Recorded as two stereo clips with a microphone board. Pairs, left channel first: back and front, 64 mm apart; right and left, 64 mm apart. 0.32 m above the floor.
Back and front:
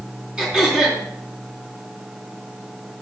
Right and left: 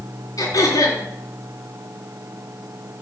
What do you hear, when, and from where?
0.4 s throat clearing: 80° right, 3 m